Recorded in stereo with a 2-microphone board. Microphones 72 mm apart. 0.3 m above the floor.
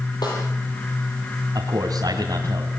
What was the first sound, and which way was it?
A snare drum, 70° left (ahead or behind).